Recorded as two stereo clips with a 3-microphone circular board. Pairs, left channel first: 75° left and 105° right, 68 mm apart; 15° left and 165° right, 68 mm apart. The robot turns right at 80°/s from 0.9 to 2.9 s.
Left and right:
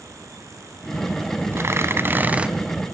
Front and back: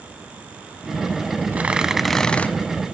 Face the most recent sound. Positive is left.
turn(degrees=-5)